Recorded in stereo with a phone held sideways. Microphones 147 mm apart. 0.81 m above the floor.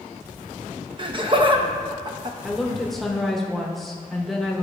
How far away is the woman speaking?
About 1.0 m.